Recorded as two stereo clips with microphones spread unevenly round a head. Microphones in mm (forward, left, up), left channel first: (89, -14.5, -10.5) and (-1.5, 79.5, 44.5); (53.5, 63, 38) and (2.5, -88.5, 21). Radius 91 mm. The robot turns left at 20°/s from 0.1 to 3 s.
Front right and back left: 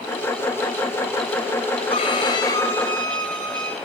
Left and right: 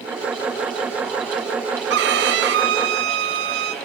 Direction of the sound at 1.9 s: 110° right.